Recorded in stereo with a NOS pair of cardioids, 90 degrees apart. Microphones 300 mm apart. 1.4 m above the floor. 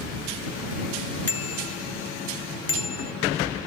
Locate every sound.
1.3 s a bicycle bell: 50° left; by 3.1 s 55° left